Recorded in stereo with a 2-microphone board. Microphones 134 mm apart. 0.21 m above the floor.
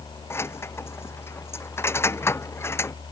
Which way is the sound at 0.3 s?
20° left (ahead or behind).